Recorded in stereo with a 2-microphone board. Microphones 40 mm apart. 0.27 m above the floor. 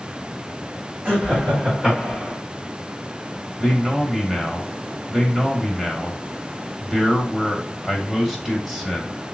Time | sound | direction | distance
1.1 | laughter | 40° right (ahead or behind) | 1.7 m
3.6 | a man speaking | 5° right (ahead or behind) | 0.9 m